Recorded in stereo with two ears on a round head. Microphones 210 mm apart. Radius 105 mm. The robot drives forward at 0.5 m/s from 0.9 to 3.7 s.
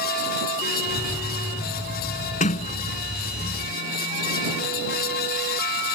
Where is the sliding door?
30° left (ahead or behind); by 3.6 s 25° left (ahead or behind).